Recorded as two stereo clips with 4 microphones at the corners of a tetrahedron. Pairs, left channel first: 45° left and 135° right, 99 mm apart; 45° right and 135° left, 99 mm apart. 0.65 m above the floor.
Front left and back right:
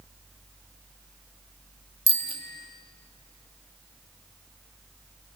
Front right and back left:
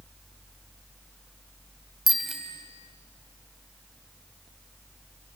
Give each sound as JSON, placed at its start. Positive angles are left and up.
{"t": 2.1, "sound": "a bicycle bell", "azimuth_deg": -135, "distance_m": 2.5}